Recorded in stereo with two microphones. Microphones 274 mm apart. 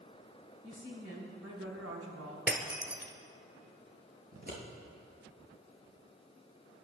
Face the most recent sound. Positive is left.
turn(degrees=-35)  # may be behind; listen again after turning